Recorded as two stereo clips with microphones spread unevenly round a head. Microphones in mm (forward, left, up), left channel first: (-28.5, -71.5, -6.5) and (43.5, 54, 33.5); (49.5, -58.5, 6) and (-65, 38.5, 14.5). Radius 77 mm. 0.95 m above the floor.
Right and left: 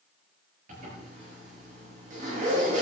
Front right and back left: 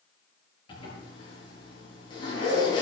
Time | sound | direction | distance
0.7 | a zipper | 20° left | 9 m